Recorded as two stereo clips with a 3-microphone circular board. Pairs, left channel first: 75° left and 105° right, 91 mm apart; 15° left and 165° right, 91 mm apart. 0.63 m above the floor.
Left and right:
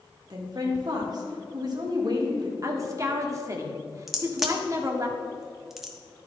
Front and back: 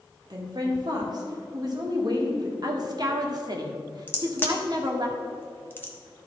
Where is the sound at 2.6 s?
145° right, 1.4 m.